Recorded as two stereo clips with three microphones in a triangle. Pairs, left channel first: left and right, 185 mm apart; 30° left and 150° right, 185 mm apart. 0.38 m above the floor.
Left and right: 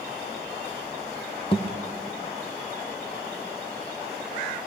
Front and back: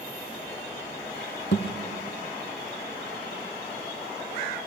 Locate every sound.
1.5 s a thud: 30° left, 2.5 m